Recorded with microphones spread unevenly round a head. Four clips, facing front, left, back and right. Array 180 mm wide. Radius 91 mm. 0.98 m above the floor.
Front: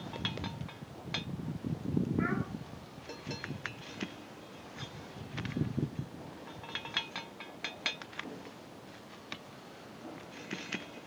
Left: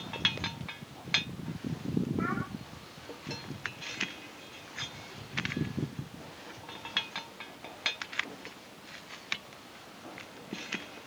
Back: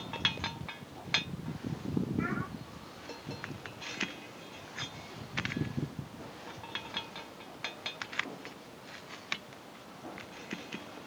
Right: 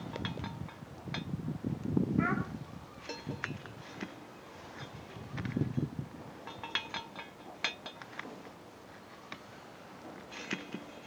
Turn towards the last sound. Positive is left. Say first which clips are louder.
# right 1 dB, front 1 dB
turn(degrees=-90)